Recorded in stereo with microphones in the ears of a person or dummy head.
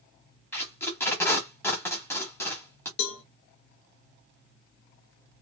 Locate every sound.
0.5 s tape being pulled: centre (ahead or behind), 1.2 m
3.0 s a cowbell: 55° left (ahead or behind), 0.7 m